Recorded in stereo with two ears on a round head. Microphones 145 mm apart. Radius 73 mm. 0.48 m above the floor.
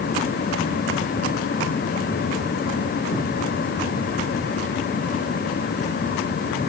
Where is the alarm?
No alarm in this recording.